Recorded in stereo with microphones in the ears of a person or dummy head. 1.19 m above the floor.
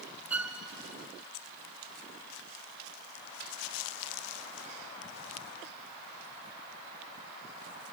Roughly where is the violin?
Centre.